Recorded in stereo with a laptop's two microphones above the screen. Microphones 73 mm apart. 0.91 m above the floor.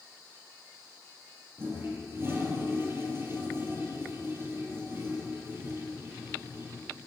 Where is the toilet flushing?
35° right (ahead or behind), 5.5 m.